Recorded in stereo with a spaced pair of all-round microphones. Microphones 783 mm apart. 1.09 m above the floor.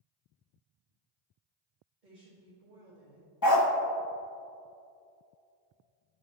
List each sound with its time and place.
2.0 s a woman speaking: 70° right (ahead or behind), 1.6 m
3.4 s a dog barking: 30° left (ahead or behind), 0.6 m